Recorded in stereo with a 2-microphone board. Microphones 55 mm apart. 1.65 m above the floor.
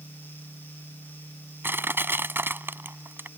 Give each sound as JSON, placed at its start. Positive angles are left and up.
{"t": 1.6, "sound": "crushing", "side_deg": -40}